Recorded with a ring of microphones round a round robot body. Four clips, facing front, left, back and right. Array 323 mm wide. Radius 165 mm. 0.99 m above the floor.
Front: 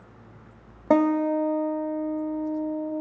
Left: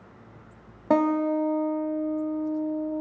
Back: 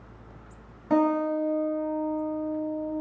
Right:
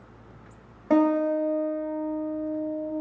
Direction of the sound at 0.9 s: 20° left.